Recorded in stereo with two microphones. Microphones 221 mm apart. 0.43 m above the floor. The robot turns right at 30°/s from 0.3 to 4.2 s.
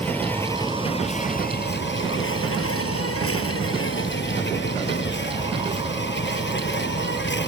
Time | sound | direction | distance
0.0 | an insect | 10° left | ?